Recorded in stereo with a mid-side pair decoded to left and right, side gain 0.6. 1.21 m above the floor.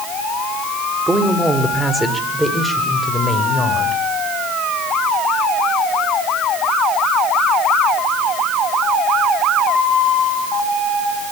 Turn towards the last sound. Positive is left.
turn(degrees=15)